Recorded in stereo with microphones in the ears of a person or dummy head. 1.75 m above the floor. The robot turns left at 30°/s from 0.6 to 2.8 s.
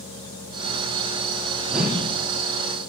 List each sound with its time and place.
1.7 s a whoosh: 5° left (ahead or behind), 2 m; by 2.1 s 5° right (ahead or behind), 2 m